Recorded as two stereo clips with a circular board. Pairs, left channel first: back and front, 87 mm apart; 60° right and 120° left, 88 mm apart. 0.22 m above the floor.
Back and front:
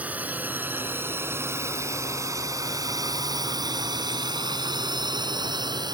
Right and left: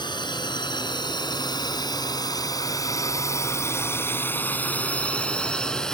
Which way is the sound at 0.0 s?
70° right.